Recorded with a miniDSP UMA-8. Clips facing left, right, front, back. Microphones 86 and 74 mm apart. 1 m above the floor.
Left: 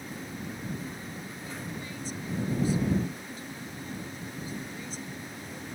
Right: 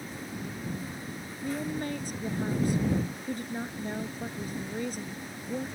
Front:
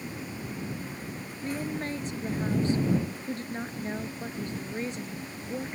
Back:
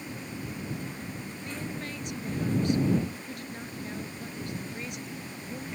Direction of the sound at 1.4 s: 55° right.